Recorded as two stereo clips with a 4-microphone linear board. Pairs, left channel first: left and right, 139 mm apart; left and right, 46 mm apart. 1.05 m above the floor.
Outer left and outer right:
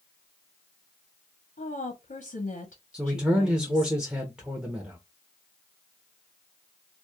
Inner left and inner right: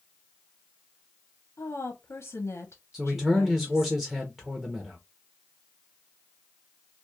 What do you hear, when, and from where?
1.6 s a woman speaking: 70° left (ahead or behind), 0.6 m
2.9 s a man speaking: 5° right (ahead or behind), 0.6 m